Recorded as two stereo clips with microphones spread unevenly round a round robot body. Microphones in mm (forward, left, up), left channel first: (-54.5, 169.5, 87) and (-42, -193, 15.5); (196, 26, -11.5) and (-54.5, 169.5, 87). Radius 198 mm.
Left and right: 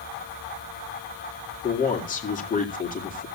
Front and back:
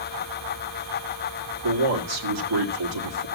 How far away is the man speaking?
About 2 m.